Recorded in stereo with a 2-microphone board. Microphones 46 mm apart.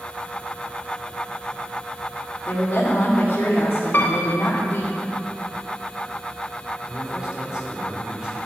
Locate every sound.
2.5 s a woman speaking: 55° left (ahead or behind), 2 m
3.9 s a piano: 50° left (ahead or behind), 1.3 m
6.9 s a man speaking: 20° right (ahead or behind), 3 m